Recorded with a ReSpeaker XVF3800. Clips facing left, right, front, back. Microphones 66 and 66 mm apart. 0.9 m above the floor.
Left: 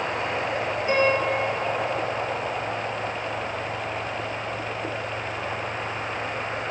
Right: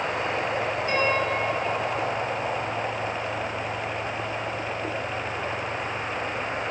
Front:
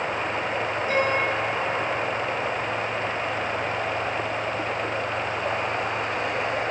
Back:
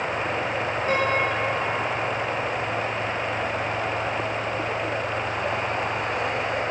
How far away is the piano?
About 1.3 m.